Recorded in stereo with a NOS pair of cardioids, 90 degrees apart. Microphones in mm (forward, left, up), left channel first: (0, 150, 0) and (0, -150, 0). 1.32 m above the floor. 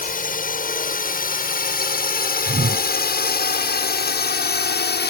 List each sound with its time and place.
0.0 s a drone: 30° left; by 5.1 s 35° left
2.5 s a whoosh: 25° right